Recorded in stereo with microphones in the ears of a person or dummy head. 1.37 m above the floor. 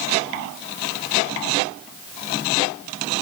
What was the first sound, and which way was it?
Only background noise.